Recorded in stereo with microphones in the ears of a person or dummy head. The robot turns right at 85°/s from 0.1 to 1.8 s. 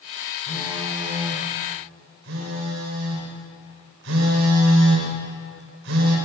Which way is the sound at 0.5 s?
140° left.